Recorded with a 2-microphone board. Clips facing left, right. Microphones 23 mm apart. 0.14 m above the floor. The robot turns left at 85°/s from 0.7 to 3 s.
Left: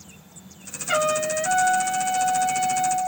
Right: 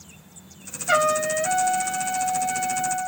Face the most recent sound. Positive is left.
turn(degrees=85)